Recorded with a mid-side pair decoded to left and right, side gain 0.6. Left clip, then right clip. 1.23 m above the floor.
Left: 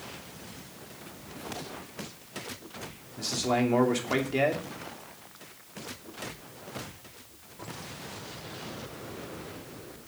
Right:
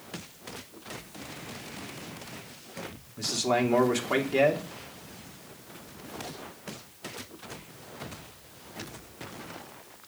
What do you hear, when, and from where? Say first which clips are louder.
3.2 s a man speaking: right 1 dB; 10° right, 2.5 m